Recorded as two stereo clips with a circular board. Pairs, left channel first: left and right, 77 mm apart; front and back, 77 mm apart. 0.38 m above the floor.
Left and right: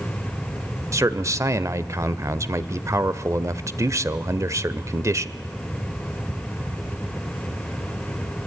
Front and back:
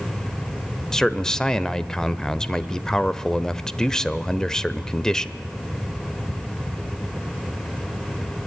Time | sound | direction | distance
0.9 | a man speaking | 75° right | 1.0 m